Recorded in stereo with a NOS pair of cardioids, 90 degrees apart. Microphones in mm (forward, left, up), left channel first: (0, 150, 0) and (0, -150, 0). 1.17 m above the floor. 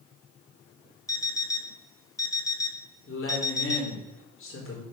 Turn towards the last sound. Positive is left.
turn(degrees=45)